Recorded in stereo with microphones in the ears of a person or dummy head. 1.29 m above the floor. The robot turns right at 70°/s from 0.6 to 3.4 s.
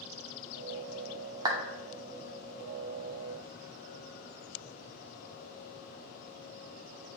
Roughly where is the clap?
Right.